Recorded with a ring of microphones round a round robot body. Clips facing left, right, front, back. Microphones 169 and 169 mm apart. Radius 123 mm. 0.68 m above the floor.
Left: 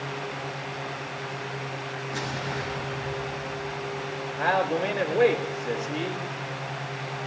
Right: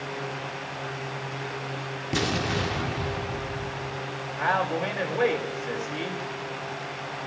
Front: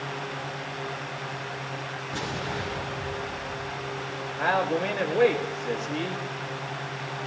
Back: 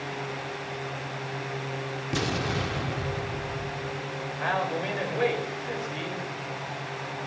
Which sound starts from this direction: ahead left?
A man speaking, at 4.4 s.